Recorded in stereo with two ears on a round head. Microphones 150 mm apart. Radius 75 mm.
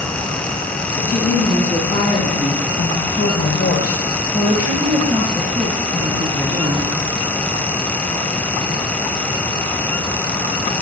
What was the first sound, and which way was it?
A woman speaking, 50° left (ahead or behind).